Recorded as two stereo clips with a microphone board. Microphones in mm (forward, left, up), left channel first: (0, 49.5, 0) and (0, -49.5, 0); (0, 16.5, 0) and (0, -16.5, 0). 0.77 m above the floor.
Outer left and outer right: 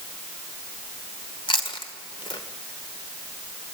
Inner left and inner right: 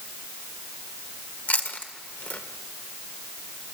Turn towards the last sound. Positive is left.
turn(degrees=60)  # may be behind; listen again after turning